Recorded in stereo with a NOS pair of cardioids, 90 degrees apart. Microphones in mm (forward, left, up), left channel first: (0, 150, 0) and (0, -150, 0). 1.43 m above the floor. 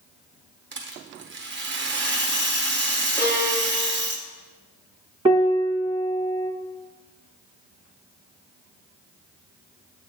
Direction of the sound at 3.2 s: 70° right.